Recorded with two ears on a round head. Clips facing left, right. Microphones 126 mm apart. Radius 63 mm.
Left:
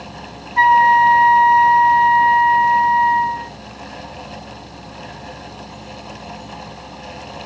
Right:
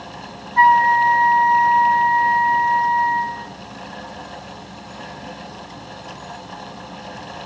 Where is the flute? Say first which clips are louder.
Left 2 dB; 25° left (ahead or behind), 0.5 m.